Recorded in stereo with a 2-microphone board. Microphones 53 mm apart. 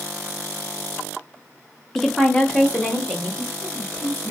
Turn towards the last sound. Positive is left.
turn(degrees=35)  # may be behind; listen again after turning